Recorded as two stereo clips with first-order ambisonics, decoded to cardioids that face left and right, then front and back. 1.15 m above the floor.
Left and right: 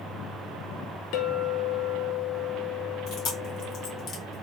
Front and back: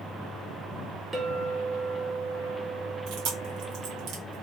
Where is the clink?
105° left, 1.4 m.